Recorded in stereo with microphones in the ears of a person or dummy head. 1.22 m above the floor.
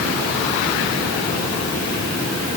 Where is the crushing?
No crushing in this recording.